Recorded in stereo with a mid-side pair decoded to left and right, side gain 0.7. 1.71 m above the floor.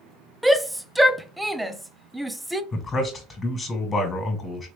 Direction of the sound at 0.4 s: 5° right.